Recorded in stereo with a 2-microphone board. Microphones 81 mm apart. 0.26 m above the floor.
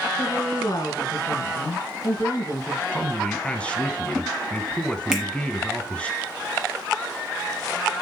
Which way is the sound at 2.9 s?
15° left (ahead or behind).